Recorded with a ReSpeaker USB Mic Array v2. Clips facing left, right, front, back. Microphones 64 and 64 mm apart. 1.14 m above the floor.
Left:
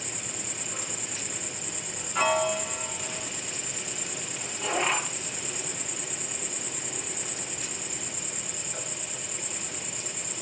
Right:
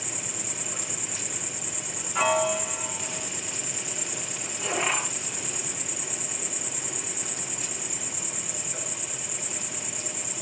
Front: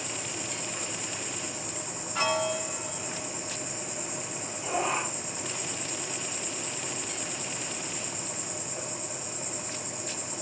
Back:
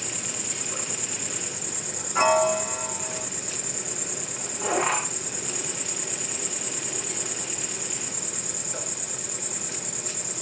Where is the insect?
175° right, 6.5 m.